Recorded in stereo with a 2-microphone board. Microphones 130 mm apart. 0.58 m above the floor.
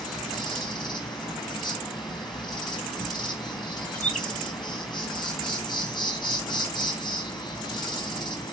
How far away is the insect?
About 4 m.